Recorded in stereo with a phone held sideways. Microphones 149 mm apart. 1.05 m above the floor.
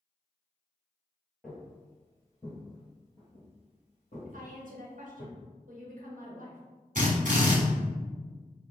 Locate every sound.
1.4 s footsteps: centre (ahead or behind), 1.3 m; by 5.2 s 55° left (ahead or behind), 2.0 m
4.2 s a woman speaking: 60° right (ahead or behind), 0.9 m
7.0 s a drill: 60° right (ahead or behind), 1.3 m